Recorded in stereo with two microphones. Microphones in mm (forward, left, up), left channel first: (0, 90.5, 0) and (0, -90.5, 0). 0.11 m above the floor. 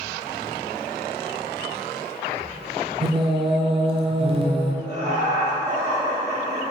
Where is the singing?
30° right (ahead or behind), 0.6 m.